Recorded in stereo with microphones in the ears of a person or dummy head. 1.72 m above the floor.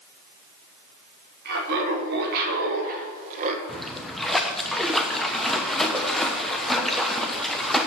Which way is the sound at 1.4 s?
55° right (ahead or behind).